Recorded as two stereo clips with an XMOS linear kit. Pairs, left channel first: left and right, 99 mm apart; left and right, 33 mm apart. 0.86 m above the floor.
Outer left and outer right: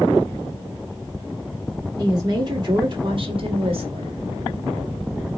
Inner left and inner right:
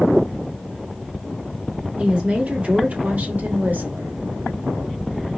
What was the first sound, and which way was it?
A woman speaking, 40° right (ahead or behind).